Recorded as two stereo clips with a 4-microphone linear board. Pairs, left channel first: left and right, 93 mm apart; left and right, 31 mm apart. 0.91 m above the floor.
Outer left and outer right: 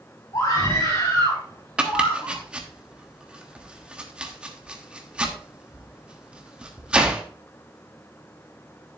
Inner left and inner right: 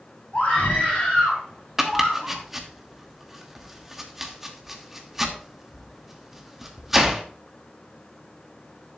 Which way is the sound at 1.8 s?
10° right (ahead or behind).